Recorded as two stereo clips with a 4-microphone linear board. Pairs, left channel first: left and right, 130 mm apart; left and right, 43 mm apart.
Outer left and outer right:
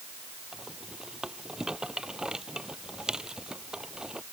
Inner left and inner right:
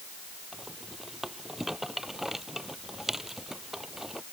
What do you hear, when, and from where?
0.5 s a rattle: 5° right (ahead or behind)